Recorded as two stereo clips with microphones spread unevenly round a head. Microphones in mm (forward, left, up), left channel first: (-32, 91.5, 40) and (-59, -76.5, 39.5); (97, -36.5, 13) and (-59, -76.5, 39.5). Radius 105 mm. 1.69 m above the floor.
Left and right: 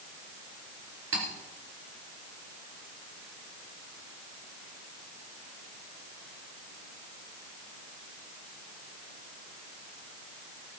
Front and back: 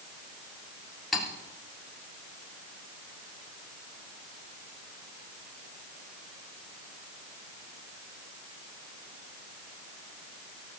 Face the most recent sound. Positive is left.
turn(degrees=-75)